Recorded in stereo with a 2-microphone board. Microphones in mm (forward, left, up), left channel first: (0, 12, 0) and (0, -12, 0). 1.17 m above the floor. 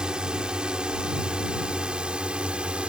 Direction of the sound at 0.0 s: 50° right (ahead or behind).